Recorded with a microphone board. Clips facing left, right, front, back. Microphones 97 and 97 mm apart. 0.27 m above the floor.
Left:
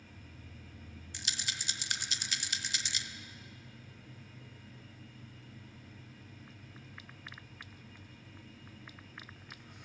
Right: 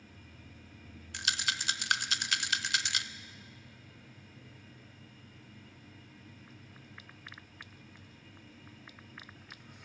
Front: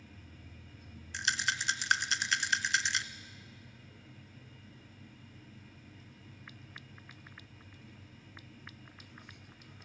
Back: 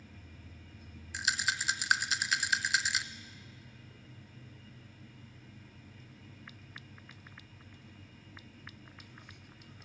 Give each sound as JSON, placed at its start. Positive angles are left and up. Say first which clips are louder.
{"t": 1.1, "sound": "a rattle", "louder": "right 8 dB, even", "azimuth_deg": -95, "distance_m": 0.8}